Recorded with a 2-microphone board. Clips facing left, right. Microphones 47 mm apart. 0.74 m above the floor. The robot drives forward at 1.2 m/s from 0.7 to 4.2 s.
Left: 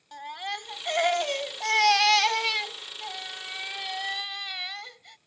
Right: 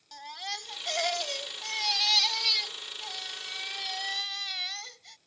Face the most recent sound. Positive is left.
turn(degrees=10)  # may be behind; listen again after turning